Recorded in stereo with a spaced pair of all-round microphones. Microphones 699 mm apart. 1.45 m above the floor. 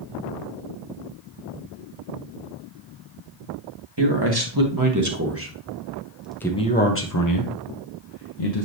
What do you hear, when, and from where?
4.0 s a man speaking: 35° right (ahead or behind), 1.9 m; by 8.7 s 60° left (ahead or behind), 1.3 m